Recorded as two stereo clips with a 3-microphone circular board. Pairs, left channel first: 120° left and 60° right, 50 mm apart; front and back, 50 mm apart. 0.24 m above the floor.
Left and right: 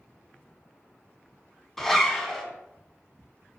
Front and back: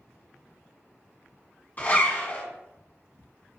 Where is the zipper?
45° left, 1.3 m.